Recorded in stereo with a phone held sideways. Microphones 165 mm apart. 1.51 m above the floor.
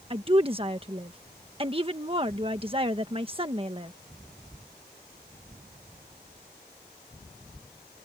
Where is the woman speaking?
30° right (ahead or behind).